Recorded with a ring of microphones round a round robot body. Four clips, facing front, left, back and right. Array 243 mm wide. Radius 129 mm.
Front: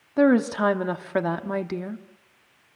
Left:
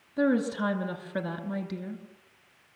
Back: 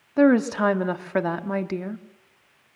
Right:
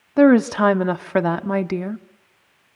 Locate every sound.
0.2 s a woman speaking: 90° right, 1.1 m